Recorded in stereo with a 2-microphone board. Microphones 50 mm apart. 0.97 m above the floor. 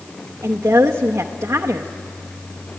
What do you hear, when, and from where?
0.4 s a woman speaking: 75° right (ahead or behind), 0.8 m